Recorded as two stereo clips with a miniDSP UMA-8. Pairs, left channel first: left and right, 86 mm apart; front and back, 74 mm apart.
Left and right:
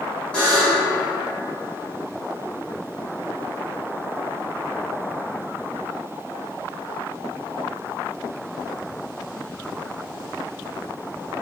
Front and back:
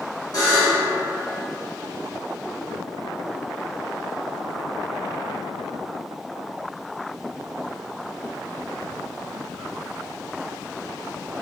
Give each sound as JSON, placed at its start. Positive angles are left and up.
{"t": 0.3, "sound": "a buzzer", "azimuth_deg": 15, "distance_m": 1.8}